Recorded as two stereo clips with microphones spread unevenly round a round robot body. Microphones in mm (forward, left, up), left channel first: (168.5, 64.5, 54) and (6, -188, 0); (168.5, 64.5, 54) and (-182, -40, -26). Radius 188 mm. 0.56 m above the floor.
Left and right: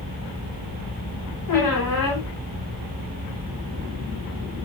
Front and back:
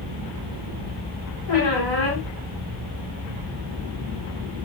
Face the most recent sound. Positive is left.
turn(degrees=45)